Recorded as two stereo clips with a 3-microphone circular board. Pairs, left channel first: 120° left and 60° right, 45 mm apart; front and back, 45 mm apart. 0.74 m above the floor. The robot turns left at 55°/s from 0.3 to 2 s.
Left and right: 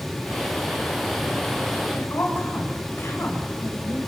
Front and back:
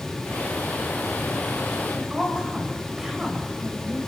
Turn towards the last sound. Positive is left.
turn(degrees=105)